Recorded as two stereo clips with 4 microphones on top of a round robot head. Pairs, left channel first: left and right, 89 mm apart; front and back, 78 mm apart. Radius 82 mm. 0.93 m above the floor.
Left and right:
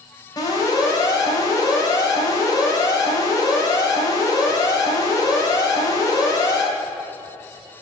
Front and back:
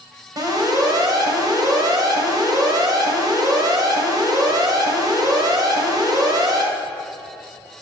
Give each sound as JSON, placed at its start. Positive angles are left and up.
{"t": 0.4, "sound": "an alarm", "azimuth_deg": 145, "distance_m": 4.0}